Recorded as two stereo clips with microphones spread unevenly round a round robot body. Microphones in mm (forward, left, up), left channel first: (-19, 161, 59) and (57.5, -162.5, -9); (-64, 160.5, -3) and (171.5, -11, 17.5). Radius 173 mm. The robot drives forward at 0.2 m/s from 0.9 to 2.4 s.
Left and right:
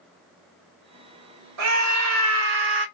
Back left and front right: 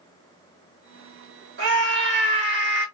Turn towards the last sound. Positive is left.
turn(degrees=-95)